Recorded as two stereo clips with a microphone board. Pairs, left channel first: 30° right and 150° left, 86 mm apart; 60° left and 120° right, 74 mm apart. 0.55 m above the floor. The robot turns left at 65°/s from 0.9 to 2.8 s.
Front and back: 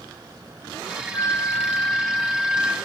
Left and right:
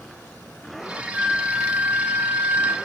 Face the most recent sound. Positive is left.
turn(degrees=-150)